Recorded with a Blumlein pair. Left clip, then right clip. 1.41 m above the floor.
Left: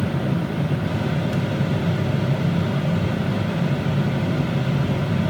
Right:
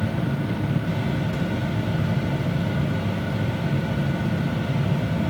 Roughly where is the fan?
Ahead left.